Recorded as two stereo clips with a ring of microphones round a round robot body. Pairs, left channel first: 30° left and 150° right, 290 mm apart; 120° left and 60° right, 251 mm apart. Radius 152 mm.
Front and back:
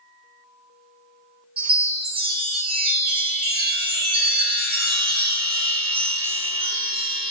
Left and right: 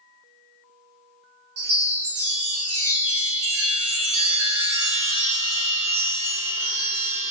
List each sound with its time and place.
1.6 s a chime: 80° right, 1.1 m